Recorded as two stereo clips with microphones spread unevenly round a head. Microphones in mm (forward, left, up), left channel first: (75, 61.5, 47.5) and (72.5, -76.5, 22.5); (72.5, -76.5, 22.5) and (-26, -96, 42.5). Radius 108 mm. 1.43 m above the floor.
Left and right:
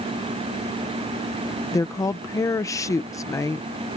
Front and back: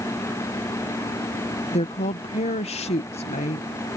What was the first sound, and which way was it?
A woman speaking, 20° left.